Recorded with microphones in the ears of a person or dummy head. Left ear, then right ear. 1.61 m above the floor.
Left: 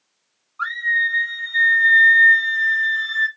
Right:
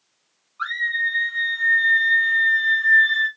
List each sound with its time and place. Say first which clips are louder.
0.6 s a scream: left 3 dB; 35° left (ahead or behind), 1.6 m; by 3.3 s 80° left, 2 m